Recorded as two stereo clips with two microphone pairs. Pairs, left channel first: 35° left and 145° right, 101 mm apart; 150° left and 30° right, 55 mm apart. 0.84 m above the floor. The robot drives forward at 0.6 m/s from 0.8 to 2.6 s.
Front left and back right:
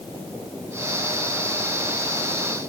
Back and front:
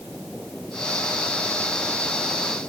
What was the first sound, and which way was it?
Only background noise.